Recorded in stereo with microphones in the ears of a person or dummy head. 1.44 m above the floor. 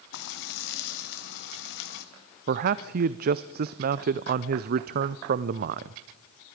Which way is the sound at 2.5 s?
55° right (ahead or behind).